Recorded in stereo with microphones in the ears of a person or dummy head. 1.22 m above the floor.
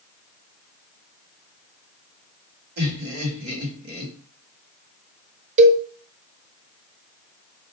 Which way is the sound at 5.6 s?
40° right (ahead or behind).